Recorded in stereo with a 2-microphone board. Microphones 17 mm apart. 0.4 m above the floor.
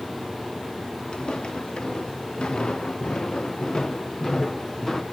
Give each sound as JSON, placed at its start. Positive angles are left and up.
{"t": 1.1, "sound": "footsteps", "side_deg": 75, "distance_m": 4.0}